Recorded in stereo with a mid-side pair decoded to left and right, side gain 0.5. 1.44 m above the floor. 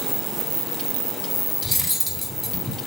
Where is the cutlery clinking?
5° left, 3.5 m.